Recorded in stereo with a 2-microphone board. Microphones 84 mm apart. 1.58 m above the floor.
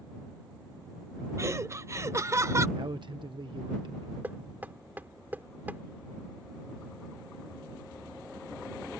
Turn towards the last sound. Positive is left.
turn(degrees=-20)  # may be behind; listen again after turning